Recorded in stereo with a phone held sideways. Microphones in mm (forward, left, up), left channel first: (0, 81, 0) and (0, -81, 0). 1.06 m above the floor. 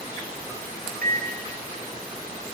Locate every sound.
1.0 s a microwave: 65° right (ahead or behind), 0.5 m